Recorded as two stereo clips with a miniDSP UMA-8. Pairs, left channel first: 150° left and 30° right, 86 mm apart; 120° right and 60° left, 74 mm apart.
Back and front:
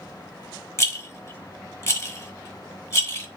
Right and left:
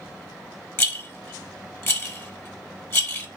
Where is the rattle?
165° right, 0.9 m.